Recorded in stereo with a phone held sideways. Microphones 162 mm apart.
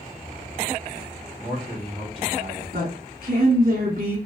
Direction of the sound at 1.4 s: 50° right (ahead or behind).